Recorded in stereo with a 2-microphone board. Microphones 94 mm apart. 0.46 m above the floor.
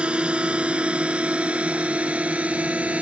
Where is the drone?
10° right (ahead or behind); by 3.0 s 15° right (ahead or behind).